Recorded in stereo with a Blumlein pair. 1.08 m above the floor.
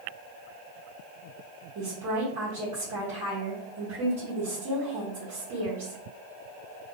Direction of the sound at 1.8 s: 45° right.